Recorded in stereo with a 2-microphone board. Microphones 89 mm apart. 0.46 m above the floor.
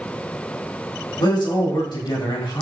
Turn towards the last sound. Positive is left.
turn(degrees=70)  # may be behind; listen again after turning